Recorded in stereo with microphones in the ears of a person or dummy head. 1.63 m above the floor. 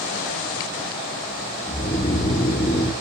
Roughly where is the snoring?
Left.